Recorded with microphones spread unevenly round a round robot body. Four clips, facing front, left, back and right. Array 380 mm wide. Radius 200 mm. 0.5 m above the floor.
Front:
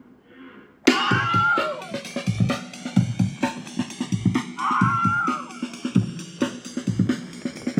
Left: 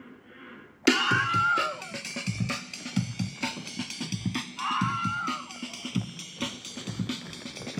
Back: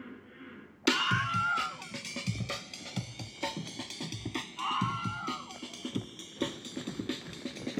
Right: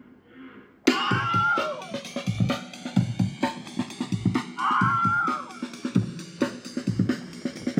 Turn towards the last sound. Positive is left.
turn(degrees=-25)